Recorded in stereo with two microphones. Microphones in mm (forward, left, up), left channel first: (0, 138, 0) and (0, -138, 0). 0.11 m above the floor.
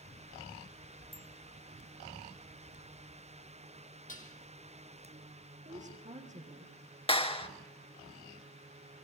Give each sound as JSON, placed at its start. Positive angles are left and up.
{"t": 1.1, "sound": "a bicycle bell", "side_deg": -45, "distance_m": 2.0}
{"t": 4.1, "sound": "dishes clattering", "side_deg": 30, "distance_m": 2.5}
{"t": 5.7, "sound": "a woman speaking", "side_deg": -25, "distance_m": 5.5}
{"t": 7.1, "sound": "a clap", "side_deg": 20, "distance_m": 1.6}